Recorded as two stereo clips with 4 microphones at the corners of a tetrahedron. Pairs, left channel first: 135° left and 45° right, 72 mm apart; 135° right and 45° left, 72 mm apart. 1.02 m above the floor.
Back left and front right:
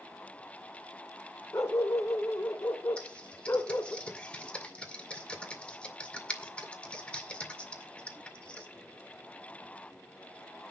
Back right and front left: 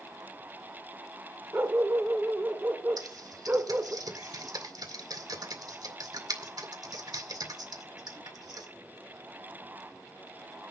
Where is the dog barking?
95° left, 1.1 m.